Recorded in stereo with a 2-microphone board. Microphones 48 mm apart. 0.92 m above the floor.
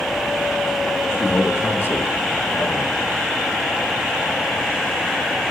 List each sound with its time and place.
1.2 s a man speaking: 50° left (ahead or behind), 1.3 m